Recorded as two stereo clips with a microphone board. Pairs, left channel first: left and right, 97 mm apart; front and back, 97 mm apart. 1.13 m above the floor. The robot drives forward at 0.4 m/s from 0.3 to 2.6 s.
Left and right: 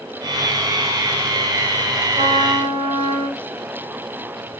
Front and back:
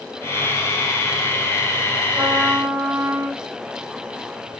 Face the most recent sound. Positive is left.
turn(degrees=-115)